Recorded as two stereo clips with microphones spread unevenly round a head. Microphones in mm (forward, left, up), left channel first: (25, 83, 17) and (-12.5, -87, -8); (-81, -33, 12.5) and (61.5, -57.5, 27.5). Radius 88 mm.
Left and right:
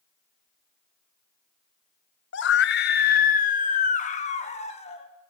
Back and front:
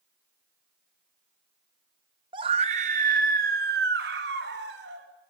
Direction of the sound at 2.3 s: 55° left.